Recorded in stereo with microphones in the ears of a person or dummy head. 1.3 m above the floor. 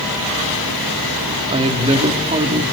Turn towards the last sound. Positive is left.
turn(degrees=-35)  # may be behind; listen again after turning